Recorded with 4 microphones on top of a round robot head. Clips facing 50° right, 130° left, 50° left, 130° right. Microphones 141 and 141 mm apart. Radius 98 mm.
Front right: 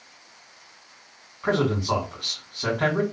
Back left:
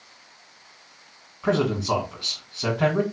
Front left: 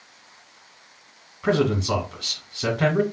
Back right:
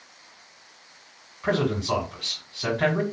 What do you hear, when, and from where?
1.4 s a man speaking: 55° left, 1.6 m